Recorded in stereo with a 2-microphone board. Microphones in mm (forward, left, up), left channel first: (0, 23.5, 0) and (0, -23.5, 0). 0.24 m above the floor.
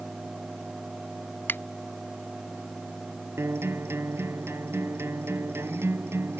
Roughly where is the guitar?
Right.